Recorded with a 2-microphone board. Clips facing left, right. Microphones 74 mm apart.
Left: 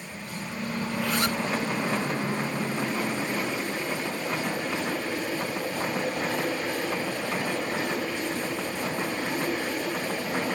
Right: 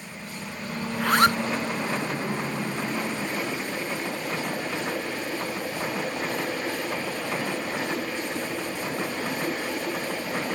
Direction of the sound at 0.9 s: 60° right (ahead or behind).